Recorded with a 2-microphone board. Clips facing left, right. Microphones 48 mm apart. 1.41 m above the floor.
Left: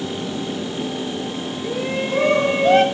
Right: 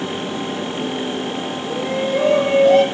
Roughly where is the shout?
Left.